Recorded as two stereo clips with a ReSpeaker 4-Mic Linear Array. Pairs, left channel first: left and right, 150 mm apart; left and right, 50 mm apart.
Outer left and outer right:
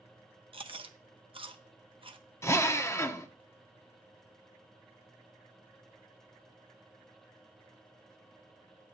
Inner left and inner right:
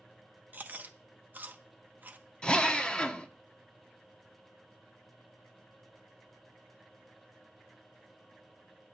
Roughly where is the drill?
Centre.